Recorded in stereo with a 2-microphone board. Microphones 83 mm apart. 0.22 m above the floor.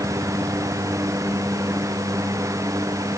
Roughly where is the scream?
I don't hear a scream.